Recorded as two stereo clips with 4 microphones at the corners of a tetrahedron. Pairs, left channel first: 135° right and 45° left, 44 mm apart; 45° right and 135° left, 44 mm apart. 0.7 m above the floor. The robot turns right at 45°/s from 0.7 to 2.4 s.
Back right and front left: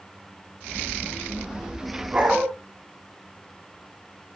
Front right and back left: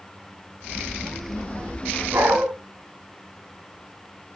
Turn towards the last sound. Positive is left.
turn(degrees=125)